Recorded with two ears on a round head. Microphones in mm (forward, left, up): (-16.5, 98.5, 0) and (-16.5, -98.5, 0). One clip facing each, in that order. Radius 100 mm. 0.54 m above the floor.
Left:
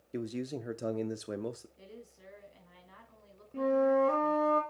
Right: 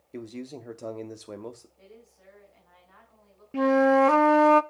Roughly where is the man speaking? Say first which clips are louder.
Left 1 dB; centre.